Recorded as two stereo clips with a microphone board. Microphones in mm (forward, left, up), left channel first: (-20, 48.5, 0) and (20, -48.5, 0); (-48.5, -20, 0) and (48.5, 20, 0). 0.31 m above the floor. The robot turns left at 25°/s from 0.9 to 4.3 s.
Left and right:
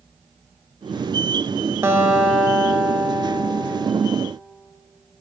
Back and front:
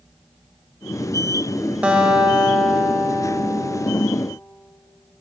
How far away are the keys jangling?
No keys jangling in this recording.